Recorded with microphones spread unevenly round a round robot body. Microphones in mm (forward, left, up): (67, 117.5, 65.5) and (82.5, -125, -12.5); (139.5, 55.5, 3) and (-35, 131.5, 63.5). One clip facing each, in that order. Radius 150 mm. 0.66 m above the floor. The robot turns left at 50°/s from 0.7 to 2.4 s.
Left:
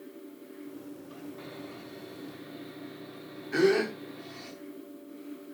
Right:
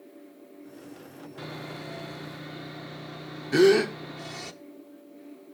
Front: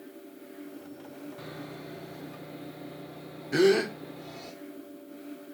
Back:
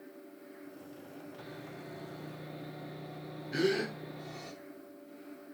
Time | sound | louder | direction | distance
1.4 | sawing | right 3 dB, front 5 dB | 60° right | 0.7 m
3.5 | a gasp | right 6 dB, front 9 dB | 50° right | 0.9 m